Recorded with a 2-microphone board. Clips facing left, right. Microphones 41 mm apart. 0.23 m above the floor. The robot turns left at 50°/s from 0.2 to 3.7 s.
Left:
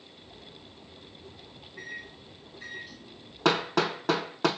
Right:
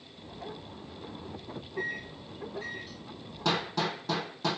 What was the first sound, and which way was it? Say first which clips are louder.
A microwave: right 5 dB; 30° right (ahead or behind).